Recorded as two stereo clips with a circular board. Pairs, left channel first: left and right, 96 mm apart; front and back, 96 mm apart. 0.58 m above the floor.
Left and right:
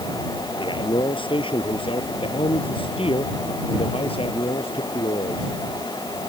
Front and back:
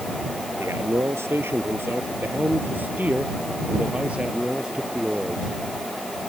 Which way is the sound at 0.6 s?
120° left.